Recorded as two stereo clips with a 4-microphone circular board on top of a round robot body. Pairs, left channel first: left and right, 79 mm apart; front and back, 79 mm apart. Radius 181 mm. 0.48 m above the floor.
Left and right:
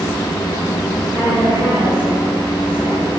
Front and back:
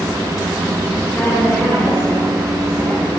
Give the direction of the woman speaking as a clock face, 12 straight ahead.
2 o'clock.